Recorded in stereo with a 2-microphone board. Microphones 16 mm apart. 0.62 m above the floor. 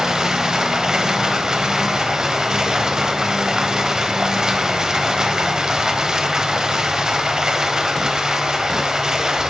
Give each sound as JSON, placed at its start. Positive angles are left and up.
{"t": 0.0, "sound": "running water", "side_deg": -40, "distance_m": 0.8}